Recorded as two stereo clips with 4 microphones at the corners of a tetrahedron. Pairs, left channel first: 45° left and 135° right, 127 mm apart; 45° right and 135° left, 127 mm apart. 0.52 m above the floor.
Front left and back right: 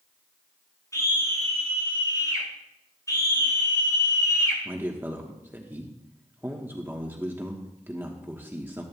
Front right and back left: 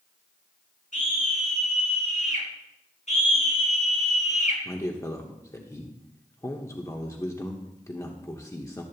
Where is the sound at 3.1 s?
20° right, 5 m.